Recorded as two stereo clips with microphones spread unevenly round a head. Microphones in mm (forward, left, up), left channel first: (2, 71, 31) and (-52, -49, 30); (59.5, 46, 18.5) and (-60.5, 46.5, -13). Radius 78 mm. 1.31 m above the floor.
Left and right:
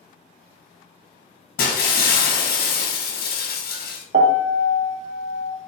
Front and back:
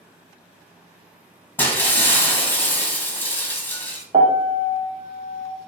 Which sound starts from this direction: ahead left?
Breaking glass, at 1.6 s.